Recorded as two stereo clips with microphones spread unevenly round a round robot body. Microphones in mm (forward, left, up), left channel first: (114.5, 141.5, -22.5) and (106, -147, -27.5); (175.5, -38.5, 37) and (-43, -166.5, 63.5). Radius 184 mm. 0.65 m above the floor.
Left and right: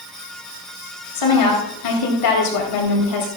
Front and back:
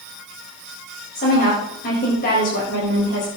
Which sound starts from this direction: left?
A woman speaking, at 1.1 s.